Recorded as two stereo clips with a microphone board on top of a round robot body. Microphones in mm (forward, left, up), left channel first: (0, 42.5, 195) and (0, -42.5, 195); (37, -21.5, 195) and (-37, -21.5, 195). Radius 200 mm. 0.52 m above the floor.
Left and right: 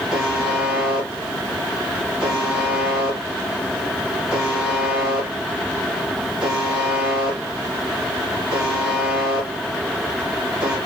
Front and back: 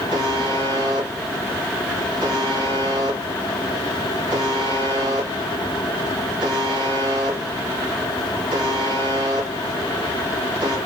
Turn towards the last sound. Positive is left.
turn(degrees=-175)